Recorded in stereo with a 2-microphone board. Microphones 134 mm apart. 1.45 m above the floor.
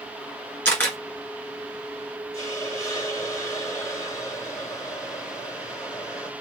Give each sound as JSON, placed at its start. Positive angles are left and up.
{"t": 0.7, "sound": "a camera shutter", "side_deg": 15, "distance_m": 2.5}
{"t": 2.3, "sound": "a hiss", "side_deg": 25, "distance_m": 2.5}